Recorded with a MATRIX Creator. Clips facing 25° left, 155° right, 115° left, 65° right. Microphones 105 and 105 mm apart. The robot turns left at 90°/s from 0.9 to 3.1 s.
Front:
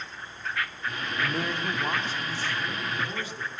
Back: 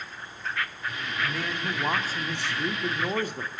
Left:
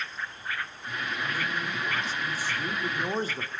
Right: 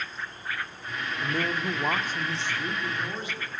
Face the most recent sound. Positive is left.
turn(degrees=165)